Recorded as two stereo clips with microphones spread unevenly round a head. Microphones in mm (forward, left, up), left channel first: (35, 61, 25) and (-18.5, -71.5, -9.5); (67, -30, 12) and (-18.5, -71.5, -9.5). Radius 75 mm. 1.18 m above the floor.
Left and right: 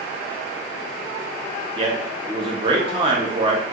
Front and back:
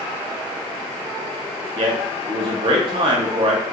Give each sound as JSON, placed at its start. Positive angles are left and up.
{"t": 1.8, "sound": "a man speaking", "azimuth_deg": -155, "distance_m": 0.8}